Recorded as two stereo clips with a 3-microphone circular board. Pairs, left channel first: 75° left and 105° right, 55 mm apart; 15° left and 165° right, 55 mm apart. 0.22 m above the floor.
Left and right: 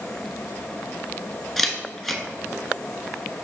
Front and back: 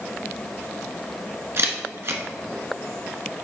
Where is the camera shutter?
160° left, 1.0 m.